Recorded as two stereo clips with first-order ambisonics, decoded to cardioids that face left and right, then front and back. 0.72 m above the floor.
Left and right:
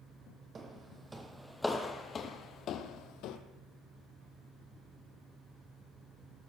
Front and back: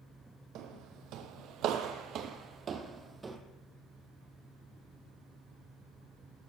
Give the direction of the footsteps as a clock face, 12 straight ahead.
5 o'clock.